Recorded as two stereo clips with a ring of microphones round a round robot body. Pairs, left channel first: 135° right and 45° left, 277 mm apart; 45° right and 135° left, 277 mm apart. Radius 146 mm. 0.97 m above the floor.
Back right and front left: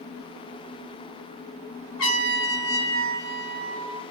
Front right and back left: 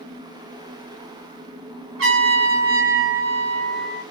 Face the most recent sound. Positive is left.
turn(degrees=180)